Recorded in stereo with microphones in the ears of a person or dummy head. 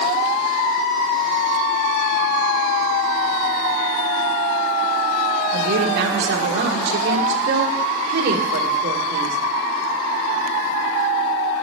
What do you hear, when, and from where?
5.5 s a woman speaking: 70° right (ahead or behind), 1.5 m